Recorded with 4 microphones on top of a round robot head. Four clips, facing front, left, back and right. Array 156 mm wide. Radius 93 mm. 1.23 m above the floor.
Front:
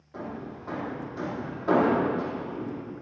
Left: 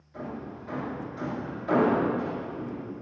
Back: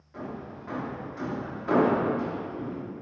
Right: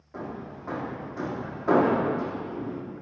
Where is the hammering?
60° right, 2.5 m.